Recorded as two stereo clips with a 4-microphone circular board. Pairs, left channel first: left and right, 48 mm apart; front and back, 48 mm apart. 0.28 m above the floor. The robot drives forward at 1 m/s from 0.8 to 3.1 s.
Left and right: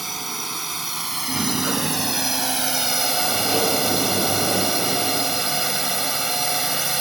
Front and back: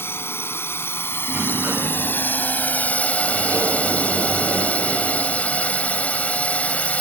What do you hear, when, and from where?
0.0 s a drone: straight ahead
1.3 s a sliding door: 135° right; by 6.8 s 170° right